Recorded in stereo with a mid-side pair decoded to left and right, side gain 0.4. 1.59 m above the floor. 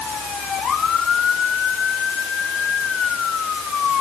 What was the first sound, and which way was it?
Only background noise.